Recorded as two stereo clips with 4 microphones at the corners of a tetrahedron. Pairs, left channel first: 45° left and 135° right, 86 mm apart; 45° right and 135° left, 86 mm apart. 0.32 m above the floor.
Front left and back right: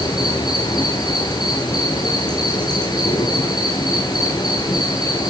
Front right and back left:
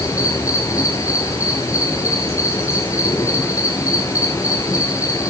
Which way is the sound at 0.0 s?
10° left.